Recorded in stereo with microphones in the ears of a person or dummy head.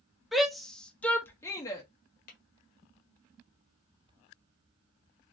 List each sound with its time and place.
0.3 s a shout: 5° right (ahead or behind), 0.8 m; by 1.8 s 15° left (ahead or behind), 0.6 m
2.3 s tapping: 55° left (ahead or behind), 1.3 m